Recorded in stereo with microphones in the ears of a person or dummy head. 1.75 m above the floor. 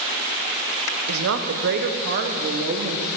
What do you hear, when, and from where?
1.1 s a woman speaking: 80° right, 1.2 m; by 3.1 s 45° right (ahead or behind), 1.9 m